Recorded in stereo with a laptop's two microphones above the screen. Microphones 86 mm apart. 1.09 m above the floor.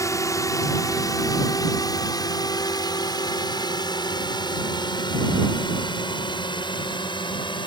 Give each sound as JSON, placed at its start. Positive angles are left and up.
{"t": 0.0, "sound": "a drone", "side_deg": 40}